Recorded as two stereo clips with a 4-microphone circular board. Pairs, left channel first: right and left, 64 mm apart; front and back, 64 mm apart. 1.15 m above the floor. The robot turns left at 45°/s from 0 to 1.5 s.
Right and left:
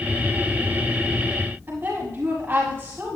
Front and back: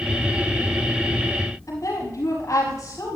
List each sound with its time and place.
1.7 s a woman speaking: 35° left, 7 m